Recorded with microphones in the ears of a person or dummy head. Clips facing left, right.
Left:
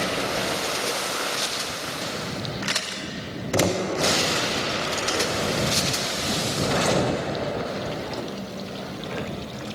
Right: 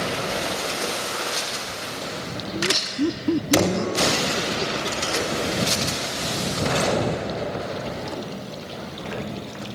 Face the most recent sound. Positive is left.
turn(degrees=-90)